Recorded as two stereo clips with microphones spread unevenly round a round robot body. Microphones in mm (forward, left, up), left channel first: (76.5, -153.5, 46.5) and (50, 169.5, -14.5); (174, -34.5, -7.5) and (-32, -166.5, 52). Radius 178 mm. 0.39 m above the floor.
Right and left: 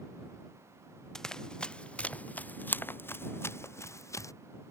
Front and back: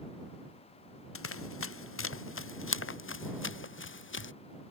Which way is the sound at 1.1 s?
5° left.